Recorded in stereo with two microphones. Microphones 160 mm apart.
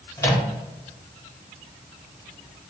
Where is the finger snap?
No finger snap in this recording.